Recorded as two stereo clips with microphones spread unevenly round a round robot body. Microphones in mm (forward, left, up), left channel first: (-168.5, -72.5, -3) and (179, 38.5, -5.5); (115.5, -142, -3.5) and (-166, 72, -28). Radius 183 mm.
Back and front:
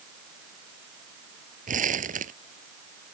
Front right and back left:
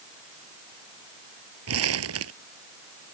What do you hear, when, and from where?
1.7 s crumpling: 90° left